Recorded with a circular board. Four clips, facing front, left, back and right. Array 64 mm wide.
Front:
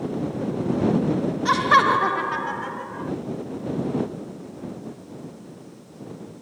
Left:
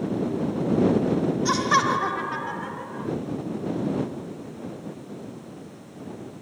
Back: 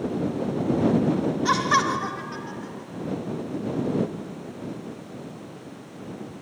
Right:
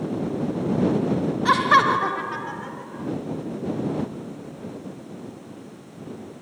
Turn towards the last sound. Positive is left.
turn(degrees=20)